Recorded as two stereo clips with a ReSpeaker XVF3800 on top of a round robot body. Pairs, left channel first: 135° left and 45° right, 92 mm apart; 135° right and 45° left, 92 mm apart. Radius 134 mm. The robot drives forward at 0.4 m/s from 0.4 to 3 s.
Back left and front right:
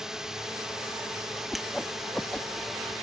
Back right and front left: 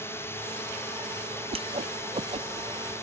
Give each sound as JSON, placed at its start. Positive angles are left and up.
{"t": 0.0, "sound": "a drone", "azimuth_deg": -120}
{"t": 1.5, "sound": "a whoosh", "azimuth_deg": 45}